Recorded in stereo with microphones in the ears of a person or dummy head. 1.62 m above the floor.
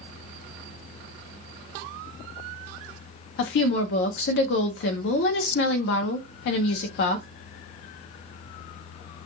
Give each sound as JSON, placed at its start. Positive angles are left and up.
{"t": 3.4, "sound": "a woman speaking", "side_deg": 55, "distance_m": 0.5}